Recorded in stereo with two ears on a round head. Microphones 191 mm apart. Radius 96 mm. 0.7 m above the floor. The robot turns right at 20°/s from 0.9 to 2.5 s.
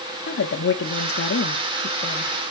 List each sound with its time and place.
0.3 s a woman speaking: 55° left (ahead or behind), 1.0 m; by 2.4 s 35° left (ahead or behind), 1.0 m